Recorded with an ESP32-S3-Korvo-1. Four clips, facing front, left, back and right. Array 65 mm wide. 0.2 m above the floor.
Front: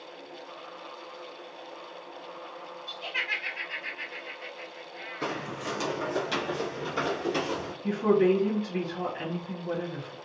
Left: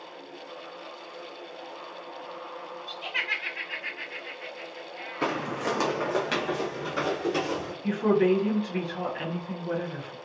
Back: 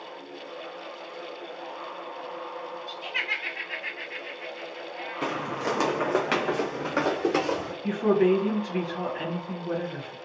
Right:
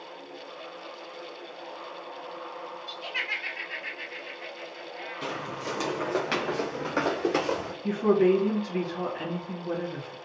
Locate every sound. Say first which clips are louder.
2.9 s laughter: left 2 dB, even; 85° left, 1.1 m; by 5.5 s 170° left, 1.8 m
5.2 s footsteps: left 7 dB, back 4 dB; 110° left, 0.6 m; by 7.7 s 140° right, 1.6 m
7.8 s a woman speaking: right 1 dB, back 1 dB; 130° left, 1.4 m